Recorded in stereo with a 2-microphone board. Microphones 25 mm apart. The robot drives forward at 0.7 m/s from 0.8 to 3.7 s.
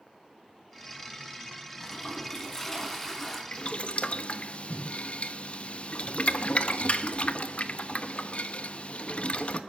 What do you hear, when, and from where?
1.8 s a toilet flushing: 15° left (ahead or behind), 3 m; by 3.4 s 10° left (ahead or behind), 4 m
3.5 s boiling: 50° left (ahead or behind), 1.1 m; by 9.6 s 55° left (ahead or behind), 1.0 m